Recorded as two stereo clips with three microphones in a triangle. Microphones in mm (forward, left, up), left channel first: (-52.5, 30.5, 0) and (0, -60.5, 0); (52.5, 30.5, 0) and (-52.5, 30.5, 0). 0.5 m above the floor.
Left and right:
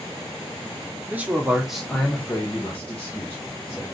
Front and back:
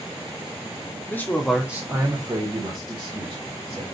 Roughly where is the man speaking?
Ahead.